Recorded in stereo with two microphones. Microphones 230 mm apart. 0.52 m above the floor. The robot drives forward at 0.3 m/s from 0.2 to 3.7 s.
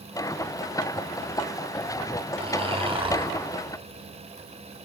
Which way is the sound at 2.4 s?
25° right (ahead or behind).